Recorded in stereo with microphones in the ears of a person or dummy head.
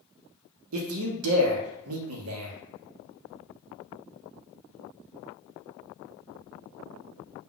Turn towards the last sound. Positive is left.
turn(degrees=-85)